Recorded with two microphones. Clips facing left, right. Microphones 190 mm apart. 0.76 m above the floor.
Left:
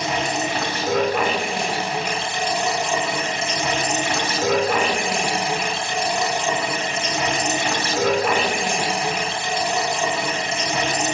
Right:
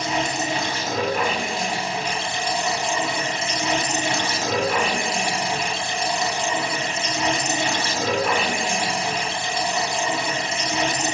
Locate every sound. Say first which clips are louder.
0.0 s running water: left 1 dB; 70° left (ahead or behind), 7 m